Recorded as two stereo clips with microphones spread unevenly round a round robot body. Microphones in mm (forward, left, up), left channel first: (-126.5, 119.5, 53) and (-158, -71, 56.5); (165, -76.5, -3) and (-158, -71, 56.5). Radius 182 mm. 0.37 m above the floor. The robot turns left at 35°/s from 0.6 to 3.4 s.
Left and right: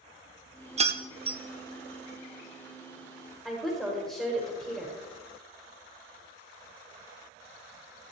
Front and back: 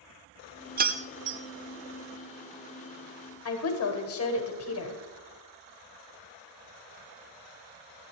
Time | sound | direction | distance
0.8 | keys jangling | 120° right | 0.8 m
3.5 | a woman speaking | 5° right | 1.8 m